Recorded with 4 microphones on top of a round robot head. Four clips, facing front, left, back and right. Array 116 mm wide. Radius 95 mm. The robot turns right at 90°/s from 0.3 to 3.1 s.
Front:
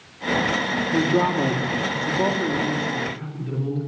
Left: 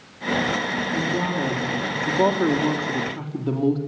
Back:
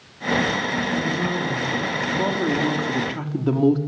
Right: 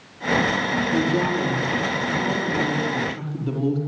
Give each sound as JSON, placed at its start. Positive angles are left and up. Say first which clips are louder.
{"t": 0.9, "sound": "a woman speaking", "louder": "right 3 dB, front 4 dB", "azimuth_deg": -35, "distance_m": 4.5}